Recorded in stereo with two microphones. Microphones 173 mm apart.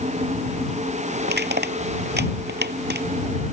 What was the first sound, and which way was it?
Crushing, 75° right (ahead or behind).